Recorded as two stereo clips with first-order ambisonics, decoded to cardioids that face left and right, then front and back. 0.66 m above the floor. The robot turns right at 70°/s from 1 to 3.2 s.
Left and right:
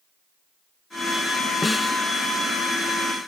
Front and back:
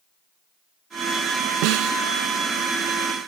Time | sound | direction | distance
1.6 | a snare drum | 170° left | ?